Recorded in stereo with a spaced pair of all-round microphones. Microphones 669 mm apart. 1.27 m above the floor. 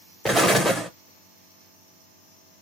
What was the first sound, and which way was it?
An explosion, centre (ahead or behind).